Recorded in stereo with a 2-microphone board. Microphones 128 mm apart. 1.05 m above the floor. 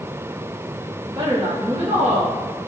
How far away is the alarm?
I don't hear an alarm.